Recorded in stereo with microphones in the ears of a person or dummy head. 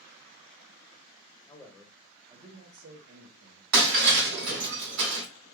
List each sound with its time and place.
1.5 s a man speaking: 20° left (ahead or behind), 0.7 m; by 4.7 s 80° right, 1.3 m
3.7 s breaking glass: 60° right (ahead or behind), 1.4 m